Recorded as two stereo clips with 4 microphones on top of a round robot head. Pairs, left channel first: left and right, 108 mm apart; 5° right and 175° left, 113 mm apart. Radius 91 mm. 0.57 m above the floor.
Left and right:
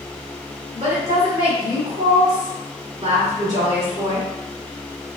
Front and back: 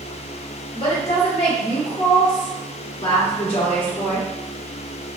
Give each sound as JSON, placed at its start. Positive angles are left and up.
{"t": 0.7, "sound": "a woman speaking", "azimuth_deg": -45, "distance_m": 1.4}